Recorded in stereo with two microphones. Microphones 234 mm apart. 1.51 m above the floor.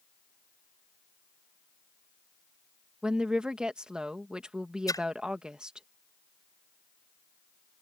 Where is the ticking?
I don't hear ticking.